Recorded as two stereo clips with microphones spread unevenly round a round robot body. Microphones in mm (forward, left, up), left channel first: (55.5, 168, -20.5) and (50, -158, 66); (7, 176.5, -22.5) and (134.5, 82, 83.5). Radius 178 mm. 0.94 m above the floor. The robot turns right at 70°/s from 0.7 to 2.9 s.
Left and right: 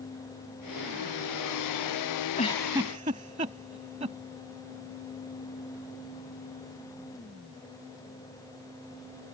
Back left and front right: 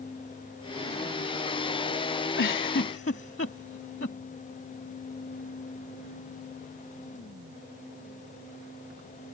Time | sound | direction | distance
2.4 | a giggle | 160° left | ?